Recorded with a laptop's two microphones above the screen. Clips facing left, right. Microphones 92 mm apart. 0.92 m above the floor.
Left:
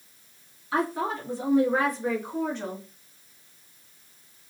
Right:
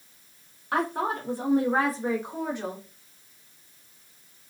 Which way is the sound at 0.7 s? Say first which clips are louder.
Even; 65° right (ahead or behind).